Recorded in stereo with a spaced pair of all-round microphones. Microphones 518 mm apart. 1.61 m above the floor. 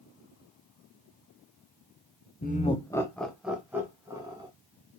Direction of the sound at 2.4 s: 20° left (ahead or behind).